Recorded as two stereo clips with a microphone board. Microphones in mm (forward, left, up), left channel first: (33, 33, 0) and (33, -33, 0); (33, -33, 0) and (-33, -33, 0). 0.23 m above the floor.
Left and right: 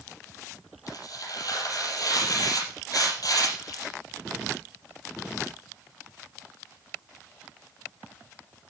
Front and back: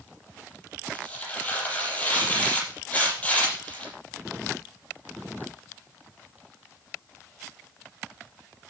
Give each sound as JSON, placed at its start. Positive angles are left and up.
{"t": 0.9, "sound": "tearing paper", "azimuth_deg": 70, "distance_m": 6.0}